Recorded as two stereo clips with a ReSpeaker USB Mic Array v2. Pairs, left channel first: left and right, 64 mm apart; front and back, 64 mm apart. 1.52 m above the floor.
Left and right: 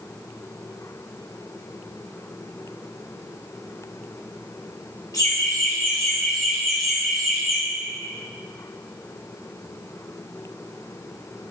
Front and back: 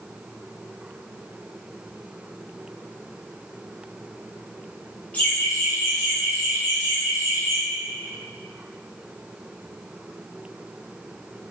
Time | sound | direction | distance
5.1 | laughter | 65° left | 1.1 m